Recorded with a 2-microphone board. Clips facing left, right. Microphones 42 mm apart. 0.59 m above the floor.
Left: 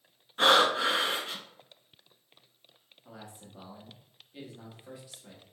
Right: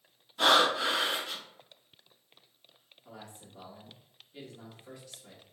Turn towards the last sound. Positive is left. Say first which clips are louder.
# left 1 dB
turn(degrees=10)  # may be behind; listen again after turning